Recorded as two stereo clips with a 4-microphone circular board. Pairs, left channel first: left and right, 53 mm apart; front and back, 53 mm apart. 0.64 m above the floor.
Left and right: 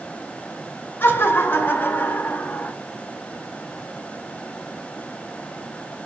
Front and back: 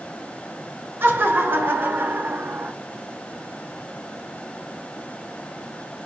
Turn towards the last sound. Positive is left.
turn(degrees=135)